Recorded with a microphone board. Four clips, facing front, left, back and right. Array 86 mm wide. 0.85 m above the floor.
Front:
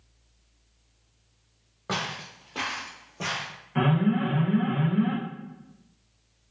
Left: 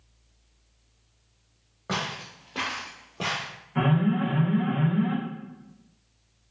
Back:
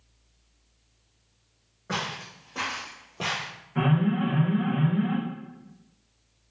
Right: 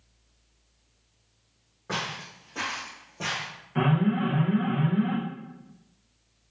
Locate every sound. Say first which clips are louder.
1.9 s footsteps: left 2 dB, even; 30° left, 1.2 m; by 3.5 s 150° left, 1.0 m
3.8 s an alarm: even, front 1 dB; 20° right, 0.7 m